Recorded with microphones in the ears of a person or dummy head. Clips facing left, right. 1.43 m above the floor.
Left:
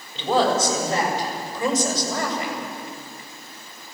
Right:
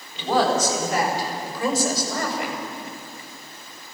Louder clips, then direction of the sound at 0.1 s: Left 1 dB; 25° left (ahead or behind).